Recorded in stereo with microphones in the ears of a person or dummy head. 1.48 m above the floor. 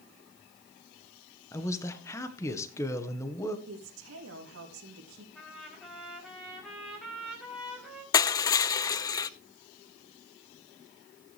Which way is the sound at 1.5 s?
15° left (ahead or behind).